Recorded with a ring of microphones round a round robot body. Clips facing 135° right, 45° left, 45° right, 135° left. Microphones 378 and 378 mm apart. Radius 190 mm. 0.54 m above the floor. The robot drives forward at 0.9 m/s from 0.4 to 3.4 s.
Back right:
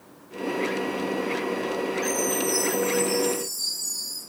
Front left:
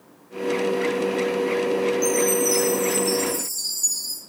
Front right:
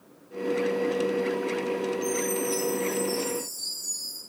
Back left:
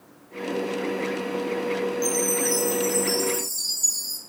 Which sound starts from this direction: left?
A chime, at 2.0 s.